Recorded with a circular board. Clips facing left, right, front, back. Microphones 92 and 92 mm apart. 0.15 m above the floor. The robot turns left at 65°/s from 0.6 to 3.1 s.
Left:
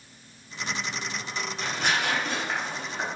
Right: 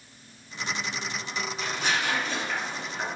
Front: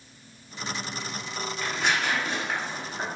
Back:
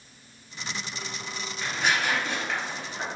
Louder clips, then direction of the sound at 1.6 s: Left 2 dB, back 1 dB; 115° left.